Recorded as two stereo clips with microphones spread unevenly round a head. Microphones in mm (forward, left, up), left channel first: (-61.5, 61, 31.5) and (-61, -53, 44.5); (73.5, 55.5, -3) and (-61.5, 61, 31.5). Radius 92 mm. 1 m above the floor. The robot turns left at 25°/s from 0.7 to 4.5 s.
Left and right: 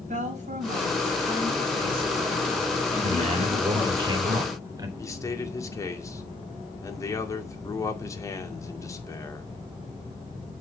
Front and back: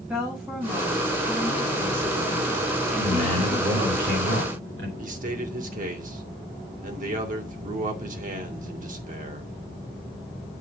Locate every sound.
0.1 s a woman speaking: 100° right, 6 m; by 4.0 s 175° left, 6 m
3.0 s a man speaking: 110° right, 3.5 m; by 4.9 s 150° right, 3.5 m
5.0 s a man speaking: 155° left, 2.5 m